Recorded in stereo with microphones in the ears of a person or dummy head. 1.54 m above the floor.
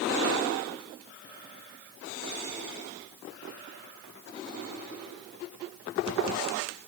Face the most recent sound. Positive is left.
No sound to turn to.